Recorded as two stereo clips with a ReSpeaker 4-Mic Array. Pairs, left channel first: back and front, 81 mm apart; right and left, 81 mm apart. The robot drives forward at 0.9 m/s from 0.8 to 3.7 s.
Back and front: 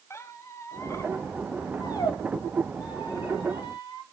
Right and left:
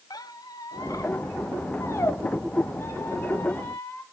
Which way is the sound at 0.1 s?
125° right.